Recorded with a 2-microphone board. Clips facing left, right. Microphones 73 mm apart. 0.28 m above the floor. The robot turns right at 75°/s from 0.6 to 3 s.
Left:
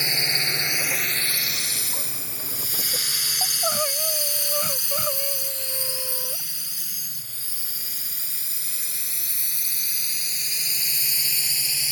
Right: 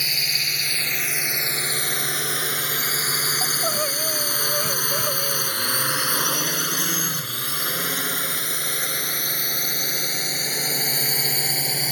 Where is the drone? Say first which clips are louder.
Left 2 dB; 25° left (ahead or behind); by 11.9 s 50° right (ahead or behind).